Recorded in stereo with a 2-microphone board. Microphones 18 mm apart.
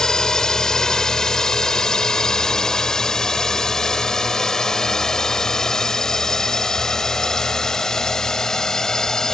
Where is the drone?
35° left (ahead or behind); by 9.3 s 30° left (ahead or behind).